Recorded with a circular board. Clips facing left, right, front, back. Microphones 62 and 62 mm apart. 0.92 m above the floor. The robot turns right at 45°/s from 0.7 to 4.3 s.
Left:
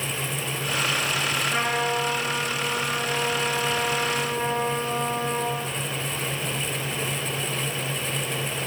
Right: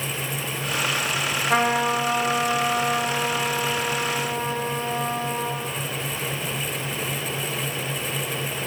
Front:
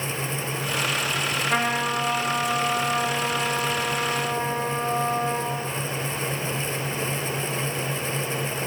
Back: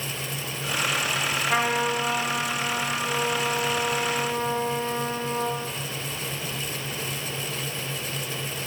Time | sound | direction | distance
1.5 | a trumpet | 90° right | 5.5 m